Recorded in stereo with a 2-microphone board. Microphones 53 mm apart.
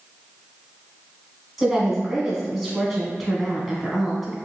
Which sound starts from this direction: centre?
A woman speaking, at 1.6 s.